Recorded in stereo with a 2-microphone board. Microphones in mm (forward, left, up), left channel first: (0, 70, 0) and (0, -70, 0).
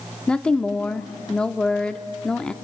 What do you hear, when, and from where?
0.3 s a woman speaking: 5° left (ahead or behind), 0.7 m